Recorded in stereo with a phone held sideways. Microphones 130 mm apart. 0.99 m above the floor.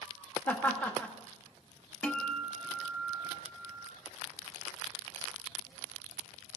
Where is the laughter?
15° left (ahead or behind), 1.9 m.